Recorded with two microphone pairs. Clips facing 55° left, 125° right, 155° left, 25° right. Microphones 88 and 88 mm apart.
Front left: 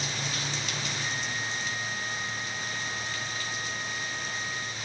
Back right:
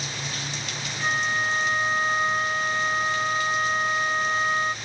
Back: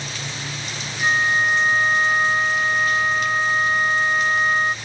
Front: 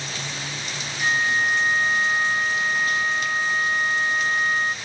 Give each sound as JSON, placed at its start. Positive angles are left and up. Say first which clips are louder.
{"t": 1.0, "sound": "a flute", "louder": "back right 8 dB, back 3 dB", "azimuth_deg": -150}